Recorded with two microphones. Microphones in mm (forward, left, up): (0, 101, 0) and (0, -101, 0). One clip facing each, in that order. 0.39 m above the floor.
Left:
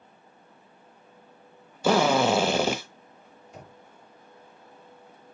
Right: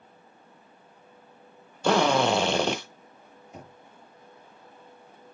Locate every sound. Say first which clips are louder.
1.8 s a drill: left 1 dB; 5° left (ahead or behind), 1.2 m
3.5 s knocking: right 1 dB; 20° right (ahead or behind), 5.5 m